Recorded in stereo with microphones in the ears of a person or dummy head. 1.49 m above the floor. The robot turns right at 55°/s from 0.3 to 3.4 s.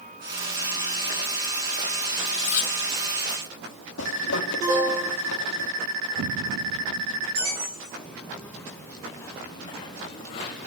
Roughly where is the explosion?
Right.